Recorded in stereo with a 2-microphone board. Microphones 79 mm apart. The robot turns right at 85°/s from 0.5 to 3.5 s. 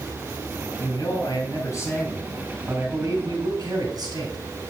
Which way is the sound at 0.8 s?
50° left.